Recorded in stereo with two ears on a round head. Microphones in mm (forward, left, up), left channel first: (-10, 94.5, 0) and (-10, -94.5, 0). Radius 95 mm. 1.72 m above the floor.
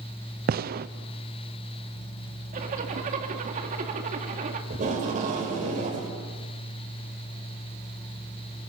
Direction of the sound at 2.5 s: 40° right (ahead or behind).